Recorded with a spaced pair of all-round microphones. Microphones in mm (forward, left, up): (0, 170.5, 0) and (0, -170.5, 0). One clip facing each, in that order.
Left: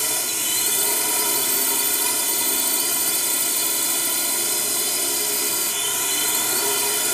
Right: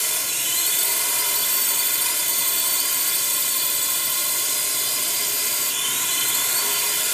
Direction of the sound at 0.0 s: 60° left (ahead or behind).